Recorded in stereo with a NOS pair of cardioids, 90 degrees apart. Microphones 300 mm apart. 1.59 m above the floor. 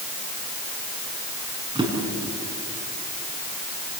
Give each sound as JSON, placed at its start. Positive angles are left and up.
{"t": 1.8, "sound": "a drawer", "azimuth_deg": -15, "distance_m": 7.5}